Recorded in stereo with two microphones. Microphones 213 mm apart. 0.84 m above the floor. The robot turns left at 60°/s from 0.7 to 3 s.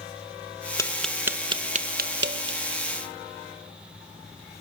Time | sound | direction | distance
0.8 | tapping | 15° left (ahead or behind) | 0.8 m